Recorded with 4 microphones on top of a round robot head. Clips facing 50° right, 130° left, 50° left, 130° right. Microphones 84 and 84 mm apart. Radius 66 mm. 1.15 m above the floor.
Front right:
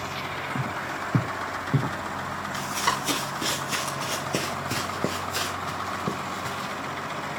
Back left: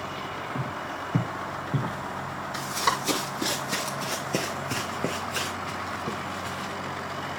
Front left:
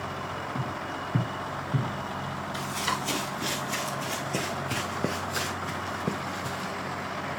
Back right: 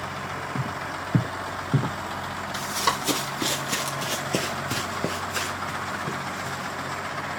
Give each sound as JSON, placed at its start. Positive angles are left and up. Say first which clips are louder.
{"t": 0.6, "sound": "footsteps", "louder": "front right 2 dB, back right 2 dB", "azimuth_deg": -115, "distance_m": 1.2}
{"t": 2.5, "sound": "running footsteps", "louder": "back left 1 dB, back right 5 dB", "azimuth_deg": -150, "distance_m": 2.5}